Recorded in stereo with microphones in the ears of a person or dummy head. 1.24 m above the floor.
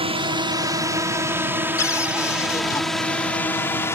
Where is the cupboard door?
20° left (ahead or behind).